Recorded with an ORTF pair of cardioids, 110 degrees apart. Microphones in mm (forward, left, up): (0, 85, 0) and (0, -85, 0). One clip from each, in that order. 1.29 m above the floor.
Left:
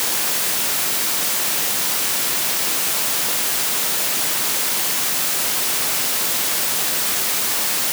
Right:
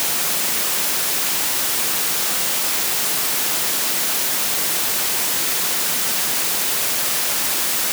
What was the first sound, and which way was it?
Only background noise.